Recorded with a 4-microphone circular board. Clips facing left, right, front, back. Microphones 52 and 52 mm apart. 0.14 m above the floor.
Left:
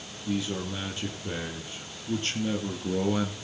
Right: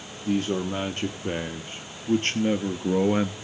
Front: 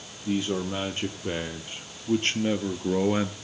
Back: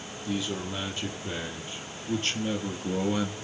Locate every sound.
0.2 s a man speaking: 50° right, 4 m